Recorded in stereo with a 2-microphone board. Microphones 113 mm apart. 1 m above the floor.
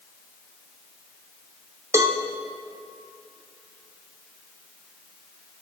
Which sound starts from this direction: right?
A cowbell, at 1.9 s.